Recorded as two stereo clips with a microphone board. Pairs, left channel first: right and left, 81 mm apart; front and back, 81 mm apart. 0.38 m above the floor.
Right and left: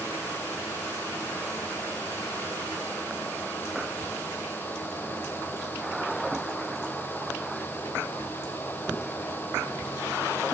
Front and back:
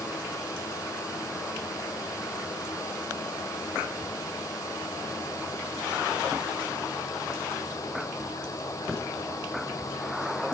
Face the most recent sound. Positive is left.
No sound to turn to.